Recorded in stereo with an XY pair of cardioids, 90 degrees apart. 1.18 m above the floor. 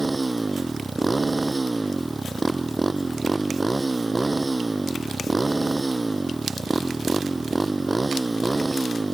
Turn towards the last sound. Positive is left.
turn(degrees=-20)